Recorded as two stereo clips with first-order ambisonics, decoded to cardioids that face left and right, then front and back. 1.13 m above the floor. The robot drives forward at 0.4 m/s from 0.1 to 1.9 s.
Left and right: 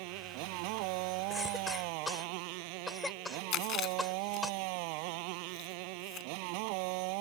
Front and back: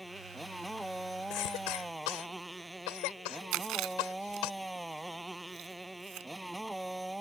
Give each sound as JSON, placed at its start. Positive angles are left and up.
{"t": 0.0, "sound": "a motorcycle", "azimuth_deg": -90}
{"t": 1.3, "sound": "a cough", "azimuth_deg": 5}
{"t": 3.5, "sound": "chewing", "azimuth_deg": 145}